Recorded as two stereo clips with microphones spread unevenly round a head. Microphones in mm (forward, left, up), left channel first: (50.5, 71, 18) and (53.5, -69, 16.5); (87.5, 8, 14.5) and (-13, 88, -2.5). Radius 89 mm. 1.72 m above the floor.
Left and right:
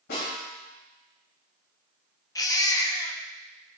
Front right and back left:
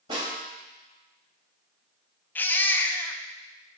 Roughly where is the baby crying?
Ahead left.